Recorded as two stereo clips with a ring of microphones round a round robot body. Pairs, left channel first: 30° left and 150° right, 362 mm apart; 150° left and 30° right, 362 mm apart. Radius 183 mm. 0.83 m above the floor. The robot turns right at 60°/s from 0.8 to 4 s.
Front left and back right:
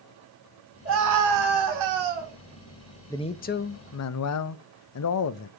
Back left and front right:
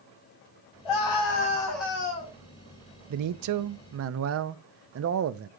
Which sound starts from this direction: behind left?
A scream, at 0.8 s.